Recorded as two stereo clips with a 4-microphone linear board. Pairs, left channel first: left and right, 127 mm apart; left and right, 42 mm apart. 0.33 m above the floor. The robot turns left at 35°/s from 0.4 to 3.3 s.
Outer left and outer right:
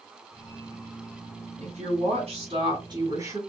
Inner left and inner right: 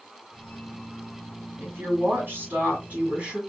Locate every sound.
1.6 s a woman speaking: 90° right, 2.5 m; by 3.4 s 150° right, 2.5 m